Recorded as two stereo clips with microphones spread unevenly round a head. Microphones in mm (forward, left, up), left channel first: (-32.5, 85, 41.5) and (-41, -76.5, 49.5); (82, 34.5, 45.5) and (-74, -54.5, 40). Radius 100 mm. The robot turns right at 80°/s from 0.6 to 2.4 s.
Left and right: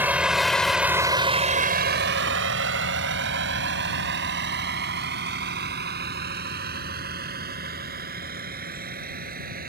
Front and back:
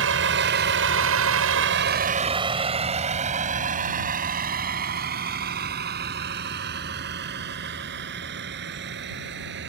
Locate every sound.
0.0 s a vehicle: 170° right; by 9.7 s 125° right